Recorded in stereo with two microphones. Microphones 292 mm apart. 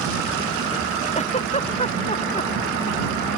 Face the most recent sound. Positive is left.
turn(degrees=25)  # may be behind; listen again after turning